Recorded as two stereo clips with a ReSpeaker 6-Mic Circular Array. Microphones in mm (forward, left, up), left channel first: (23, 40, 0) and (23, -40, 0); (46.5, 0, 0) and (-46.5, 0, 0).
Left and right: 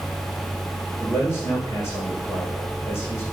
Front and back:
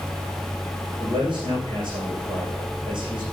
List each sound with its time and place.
1.0 s a man speaking: 145° left, 7 m